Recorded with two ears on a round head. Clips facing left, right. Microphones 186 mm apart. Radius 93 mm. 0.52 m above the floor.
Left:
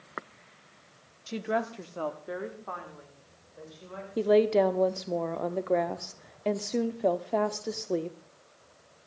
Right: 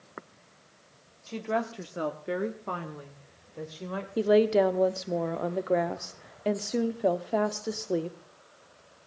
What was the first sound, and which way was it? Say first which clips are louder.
A woman speaking: even; 20° left (ahead or behind).